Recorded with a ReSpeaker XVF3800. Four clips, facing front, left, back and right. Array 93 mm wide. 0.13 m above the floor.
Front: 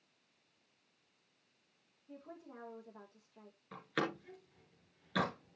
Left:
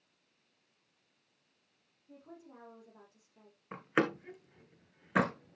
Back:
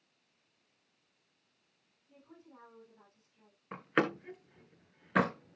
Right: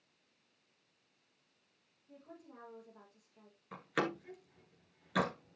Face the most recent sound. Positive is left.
turn(degrees=140)